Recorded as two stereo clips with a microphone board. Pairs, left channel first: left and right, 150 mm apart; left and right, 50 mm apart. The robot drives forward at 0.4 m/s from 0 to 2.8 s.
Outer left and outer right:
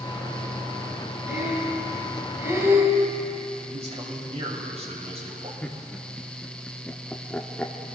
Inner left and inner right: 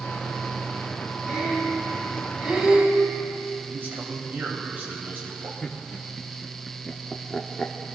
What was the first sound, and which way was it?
Breathing, 25° right (ahead or behind).